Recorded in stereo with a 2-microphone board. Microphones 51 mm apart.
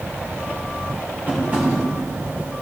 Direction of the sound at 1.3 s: 35° right (ahead or behind).